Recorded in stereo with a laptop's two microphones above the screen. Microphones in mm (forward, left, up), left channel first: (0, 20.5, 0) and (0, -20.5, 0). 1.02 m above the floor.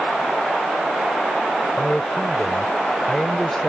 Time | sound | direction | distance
1.8 | a man speaking | 10° left (ahead or behind) | ?